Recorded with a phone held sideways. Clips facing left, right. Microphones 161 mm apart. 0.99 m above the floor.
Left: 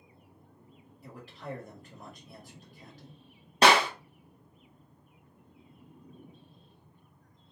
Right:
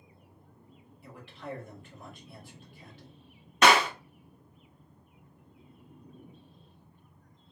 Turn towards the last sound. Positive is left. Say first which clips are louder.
# even
turn(degrees=35)  # may be behind; listen again after turning